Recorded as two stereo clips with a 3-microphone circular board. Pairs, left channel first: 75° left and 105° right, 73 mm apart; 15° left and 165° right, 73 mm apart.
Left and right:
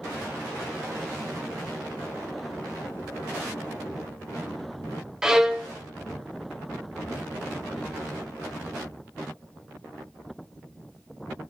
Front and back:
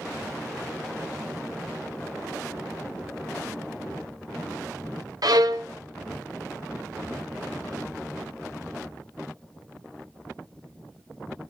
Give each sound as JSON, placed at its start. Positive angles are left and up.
{"t": 5.2, "sound": "a violin", "azimuth_deg": 170, "distance_m": 0.9}